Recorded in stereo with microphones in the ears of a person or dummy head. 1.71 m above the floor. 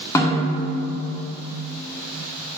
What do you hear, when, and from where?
0.1 s a snare drum: 20° left (ahead or behind), 0.8 m